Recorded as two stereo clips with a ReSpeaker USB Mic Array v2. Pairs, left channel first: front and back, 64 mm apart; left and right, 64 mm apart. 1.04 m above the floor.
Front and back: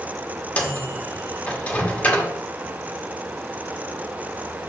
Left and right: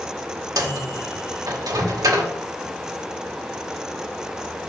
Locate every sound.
0.6 s a microwave: 70° right, 1.4 m